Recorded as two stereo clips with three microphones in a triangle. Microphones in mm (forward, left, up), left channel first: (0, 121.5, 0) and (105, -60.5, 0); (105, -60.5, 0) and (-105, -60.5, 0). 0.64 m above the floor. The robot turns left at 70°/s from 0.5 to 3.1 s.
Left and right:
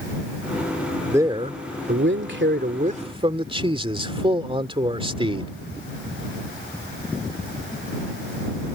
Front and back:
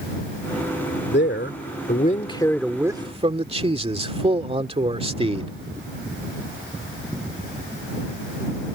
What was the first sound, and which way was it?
A man speaking, 20° left.